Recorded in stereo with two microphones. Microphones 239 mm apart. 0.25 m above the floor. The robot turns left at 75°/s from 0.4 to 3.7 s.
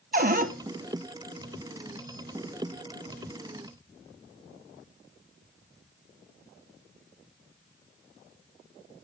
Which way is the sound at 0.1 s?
35° right (ahead or behind).